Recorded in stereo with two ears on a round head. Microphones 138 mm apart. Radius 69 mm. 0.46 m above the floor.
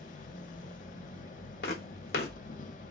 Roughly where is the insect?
Left.